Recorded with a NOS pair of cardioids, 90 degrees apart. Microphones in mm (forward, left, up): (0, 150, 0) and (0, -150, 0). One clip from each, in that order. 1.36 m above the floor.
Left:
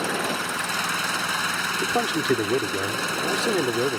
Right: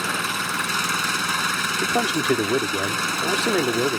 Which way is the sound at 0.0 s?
60° right.